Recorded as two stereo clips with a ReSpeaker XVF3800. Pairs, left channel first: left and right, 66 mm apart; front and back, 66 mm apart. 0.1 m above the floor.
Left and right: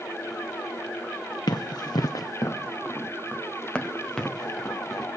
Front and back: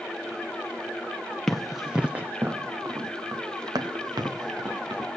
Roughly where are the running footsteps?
Left.